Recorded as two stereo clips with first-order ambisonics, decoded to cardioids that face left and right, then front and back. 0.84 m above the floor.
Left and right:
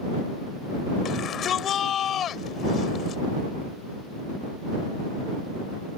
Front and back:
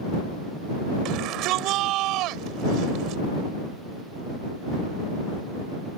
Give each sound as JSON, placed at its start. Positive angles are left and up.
{"t": 1.1, "sound": "a shout", "azimuth_deg": 145}